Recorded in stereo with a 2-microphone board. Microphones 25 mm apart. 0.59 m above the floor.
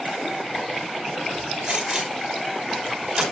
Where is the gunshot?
40° right (ahead or behind), 4 m.